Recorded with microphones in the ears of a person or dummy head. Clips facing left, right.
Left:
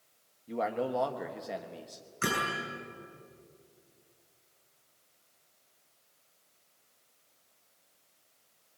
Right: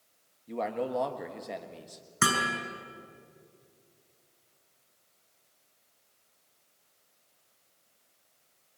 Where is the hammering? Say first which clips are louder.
Right 2 dB; 80° right, 7.5 m.